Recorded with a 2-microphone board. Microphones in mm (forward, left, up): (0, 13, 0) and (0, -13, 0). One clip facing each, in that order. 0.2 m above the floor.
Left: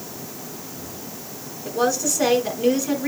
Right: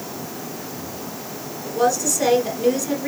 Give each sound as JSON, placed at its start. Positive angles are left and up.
{"t": 1.6, "sound": "a woman speaking", "side_deg": 20, "distance_m": 1.8}